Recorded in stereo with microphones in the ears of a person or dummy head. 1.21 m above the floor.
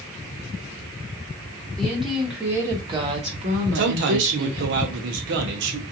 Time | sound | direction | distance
1.8 | a woman speaking | 5° left (ahead or behind) | 1.2 m
3.8 | a man speaking | 55° right (ahead or behind) | 0.7 m